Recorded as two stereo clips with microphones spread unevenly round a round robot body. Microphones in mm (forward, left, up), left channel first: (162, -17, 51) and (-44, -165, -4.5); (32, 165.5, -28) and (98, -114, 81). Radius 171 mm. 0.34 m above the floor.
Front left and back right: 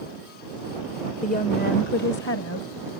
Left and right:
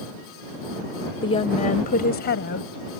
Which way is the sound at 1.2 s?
100° left.